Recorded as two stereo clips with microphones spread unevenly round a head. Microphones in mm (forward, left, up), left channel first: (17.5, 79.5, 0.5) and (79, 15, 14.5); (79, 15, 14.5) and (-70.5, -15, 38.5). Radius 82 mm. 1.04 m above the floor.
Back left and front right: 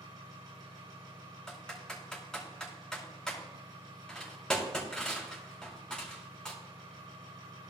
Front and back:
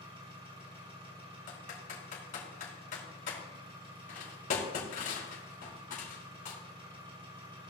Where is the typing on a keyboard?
50° left, 5 m.